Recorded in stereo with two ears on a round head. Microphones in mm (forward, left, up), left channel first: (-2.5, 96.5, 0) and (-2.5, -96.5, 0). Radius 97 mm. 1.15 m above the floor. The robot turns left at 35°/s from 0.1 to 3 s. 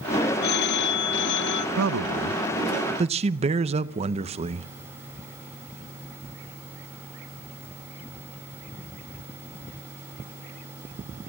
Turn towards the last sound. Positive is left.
turn(degrees=-150)